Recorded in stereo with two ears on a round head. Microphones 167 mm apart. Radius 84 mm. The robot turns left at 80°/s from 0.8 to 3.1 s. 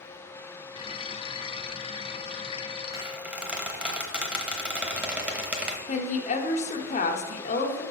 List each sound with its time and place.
2.9 s a squeak: 20° right (ahead or behind), 1.1 m; by 5.8 s 5° right (ahead or behind), 1.1 m
5.9 s a woman speaking: 40° left (ahead or behind), 1.1 m